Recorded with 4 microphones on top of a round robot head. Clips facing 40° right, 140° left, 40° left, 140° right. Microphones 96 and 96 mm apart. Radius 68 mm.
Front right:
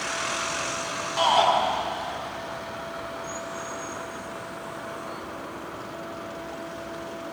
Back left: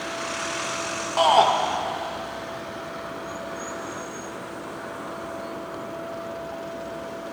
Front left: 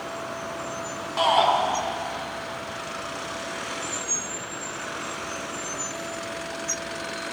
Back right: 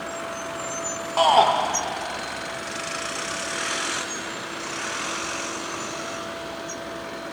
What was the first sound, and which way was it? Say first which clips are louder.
A shout: back left 3 dB, back right 3 dB; 175° left.